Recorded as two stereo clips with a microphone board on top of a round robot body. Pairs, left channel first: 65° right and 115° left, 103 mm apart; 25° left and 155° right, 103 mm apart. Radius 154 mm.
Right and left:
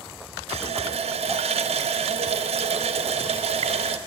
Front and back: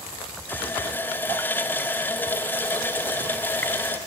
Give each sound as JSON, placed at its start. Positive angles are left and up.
{"t": 0.5, "sound": "a running tap", "azimuth_deg": 95, "distance_m": 1.1}